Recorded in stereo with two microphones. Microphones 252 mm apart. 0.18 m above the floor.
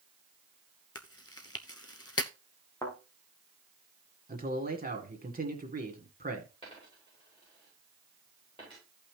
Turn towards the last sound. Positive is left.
turn(degrees=20)  # may be behind; listen again after turning